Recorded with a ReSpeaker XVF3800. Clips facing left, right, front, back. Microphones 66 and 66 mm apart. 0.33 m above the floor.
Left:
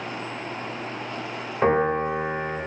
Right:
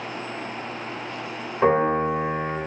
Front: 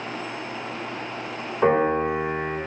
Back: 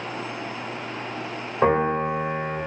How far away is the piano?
About 1.6 m.